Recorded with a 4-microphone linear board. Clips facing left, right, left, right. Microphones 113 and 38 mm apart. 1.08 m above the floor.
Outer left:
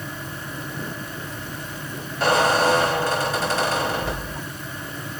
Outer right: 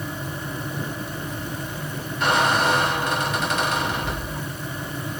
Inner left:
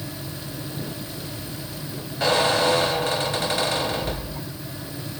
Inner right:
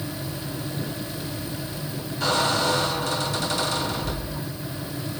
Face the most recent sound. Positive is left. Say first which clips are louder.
# outer left 2 dB, inner left 3 dB
turn(degrees=35)  # may be behind; listen again after turning